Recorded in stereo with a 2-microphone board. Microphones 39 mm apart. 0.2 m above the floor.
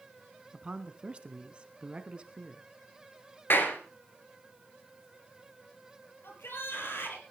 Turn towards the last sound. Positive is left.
turn(degrees=75)  # may be behind; listen again after turning